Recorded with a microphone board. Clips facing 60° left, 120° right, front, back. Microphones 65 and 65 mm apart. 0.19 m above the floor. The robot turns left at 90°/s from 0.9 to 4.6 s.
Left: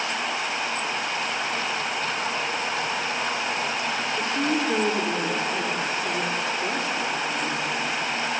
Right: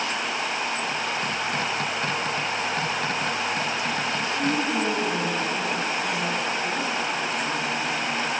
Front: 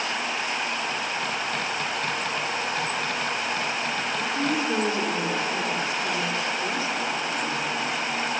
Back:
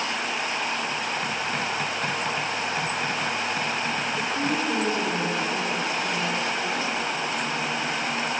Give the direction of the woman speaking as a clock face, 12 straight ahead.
9 o'clock.